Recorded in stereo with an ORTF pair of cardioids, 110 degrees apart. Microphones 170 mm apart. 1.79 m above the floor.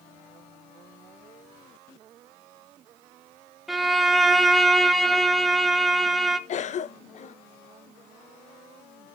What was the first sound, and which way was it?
A violin, straight ahead.